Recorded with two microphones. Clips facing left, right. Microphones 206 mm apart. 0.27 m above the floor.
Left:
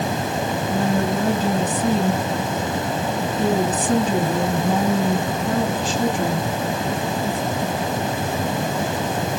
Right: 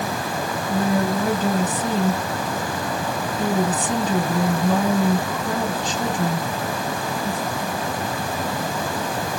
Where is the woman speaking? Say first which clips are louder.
Right 1 dB; 35° left (ahead or behind), 2.5 m.